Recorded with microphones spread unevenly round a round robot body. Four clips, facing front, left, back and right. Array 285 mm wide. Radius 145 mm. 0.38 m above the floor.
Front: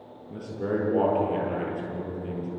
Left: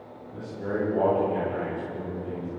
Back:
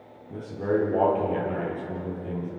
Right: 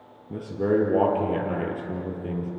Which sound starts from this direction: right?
A man speaking, at 0.3 s.